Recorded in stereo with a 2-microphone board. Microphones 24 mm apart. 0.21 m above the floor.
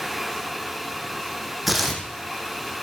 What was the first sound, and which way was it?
Tearing paper, centre (ahead or behind).